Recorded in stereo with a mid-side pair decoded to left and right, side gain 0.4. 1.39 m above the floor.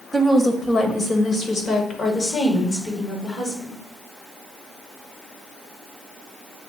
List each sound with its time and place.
0.1 s a woman speaking: 10° left, 1.2 m; by 3.8 s 60° left, 3 m